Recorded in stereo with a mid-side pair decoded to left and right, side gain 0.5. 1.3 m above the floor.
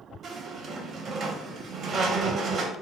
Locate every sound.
0.2 s a squeak: 50° right, 0.7 m